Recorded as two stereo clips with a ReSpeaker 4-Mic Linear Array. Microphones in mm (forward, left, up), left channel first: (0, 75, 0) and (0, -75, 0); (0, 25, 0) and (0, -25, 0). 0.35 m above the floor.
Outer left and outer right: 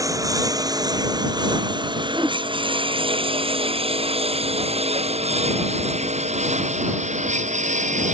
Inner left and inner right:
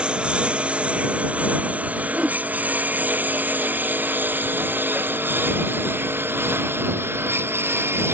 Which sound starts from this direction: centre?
A whoosh, at 2.1 s.